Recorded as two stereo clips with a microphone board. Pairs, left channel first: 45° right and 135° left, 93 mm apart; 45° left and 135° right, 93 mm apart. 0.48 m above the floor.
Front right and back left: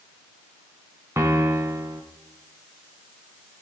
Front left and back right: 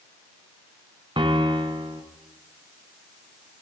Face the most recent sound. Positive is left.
turn(degrees=-165)